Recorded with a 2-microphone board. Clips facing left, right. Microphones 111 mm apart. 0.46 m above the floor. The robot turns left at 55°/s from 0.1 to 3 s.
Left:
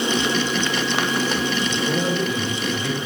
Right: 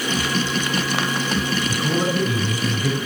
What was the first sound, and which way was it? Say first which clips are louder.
A man speaking: right 1 dB; 70° right.